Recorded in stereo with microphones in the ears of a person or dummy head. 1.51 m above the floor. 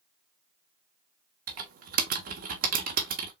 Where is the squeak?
No squeak in this recording.